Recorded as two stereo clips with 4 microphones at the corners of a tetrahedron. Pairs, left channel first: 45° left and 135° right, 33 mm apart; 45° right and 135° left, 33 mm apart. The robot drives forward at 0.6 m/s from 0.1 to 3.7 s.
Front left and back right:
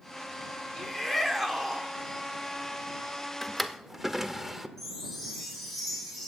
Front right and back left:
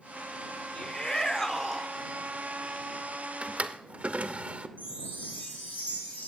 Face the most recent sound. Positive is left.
turn(degrees=-40)